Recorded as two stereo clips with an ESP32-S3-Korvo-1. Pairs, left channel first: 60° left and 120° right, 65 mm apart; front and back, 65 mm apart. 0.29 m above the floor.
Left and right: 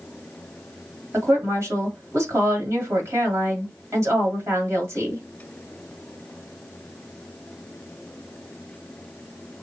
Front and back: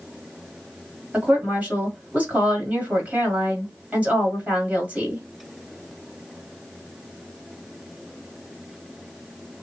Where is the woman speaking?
120° right, 1.7 m.